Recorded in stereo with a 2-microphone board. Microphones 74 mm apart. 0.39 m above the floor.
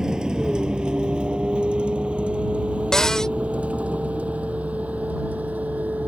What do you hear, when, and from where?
0.0 s a vehicle: 10° right (ahead or behind); by 6.1 s 20° right (ahead or behind)
2.9 s a cupboard door: 10° left (ahead or behind)